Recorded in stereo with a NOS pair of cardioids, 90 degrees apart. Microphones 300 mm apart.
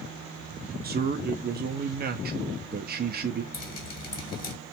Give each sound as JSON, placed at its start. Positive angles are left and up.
{"t": 0.8, "sound": "a man speaking", "azimuth_deg": -30, "distance_m": 0.5}
{"t": 3.5, "sound": "dripping", "azimuth_deg": 30, "distance_m": 1.0}